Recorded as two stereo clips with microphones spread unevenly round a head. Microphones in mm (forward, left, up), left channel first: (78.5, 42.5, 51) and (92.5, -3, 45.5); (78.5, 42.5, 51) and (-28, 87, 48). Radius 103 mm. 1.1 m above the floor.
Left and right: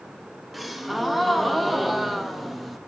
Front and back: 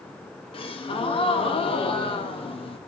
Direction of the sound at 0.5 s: 15° left.